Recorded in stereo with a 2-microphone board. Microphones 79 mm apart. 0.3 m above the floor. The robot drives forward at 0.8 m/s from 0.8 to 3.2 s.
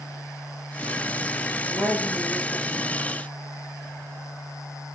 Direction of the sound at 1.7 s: 55° left (ahead or behind).